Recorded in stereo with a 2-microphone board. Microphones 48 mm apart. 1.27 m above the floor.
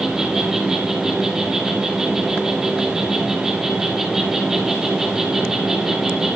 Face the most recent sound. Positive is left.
turn(degrees=-10)  # may be behind; listen again after turning